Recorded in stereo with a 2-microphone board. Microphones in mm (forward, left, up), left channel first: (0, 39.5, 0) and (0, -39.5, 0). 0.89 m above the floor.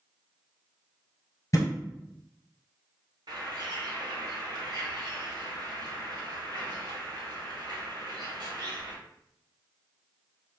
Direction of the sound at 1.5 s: 45° left (ahead or behind).